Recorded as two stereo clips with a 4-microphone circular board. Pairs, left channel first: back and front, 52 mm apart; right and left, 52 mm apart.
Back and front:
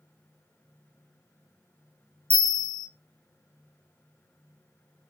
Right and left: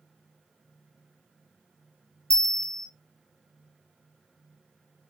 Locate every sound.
2.3 s a bell: 10° right, 0.7 m